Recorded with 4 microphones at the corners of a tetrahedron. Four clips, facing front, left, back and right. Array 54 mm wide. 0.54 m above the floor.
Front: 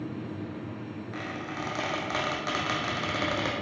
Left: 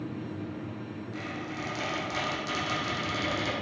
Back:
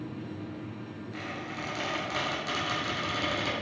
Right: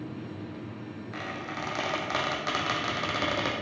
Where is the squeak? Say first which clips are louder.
Right 2 dB, front 2 dB; 55° right, 1.9 m.